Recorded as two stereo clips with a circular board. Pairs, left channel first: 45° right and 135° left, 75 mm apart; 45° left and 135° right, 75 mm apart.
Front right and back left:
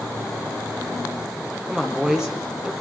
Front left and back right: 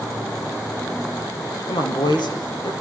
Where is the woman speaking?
55° left, 6.5 m.